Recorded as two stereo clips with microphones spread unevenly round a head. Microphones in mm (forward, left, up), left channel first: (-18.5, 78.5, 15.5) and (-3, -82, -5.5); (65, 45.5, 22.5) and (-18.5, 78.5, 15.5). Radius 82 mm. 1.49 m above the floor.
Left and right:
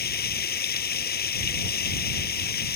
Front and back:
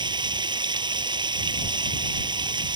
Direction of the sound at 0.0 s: 120° left.